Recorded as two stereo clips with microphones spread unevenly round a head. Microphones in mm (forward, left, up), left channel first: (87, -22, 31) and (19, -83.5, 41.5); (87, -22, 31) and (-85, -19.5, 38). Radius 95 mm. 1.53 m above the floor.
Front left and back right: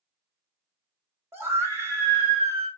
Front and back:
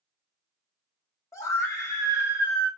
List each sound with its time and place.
1.3 s a scream: 75° right, 1.0 m